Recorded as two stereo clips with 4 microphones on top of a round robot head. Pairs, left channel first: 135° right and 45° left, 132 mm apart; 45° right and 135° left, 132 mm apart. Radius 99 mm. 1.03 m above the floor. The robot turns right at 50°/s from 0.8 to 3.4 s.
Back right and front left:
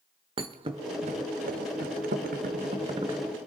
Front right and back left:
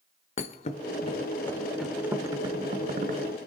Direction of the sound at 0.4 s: 5° right.